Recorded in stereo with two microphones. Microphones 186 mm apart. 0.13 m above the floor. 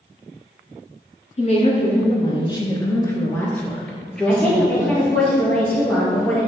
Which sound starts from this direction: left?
A woman speaking, at 1.4 s.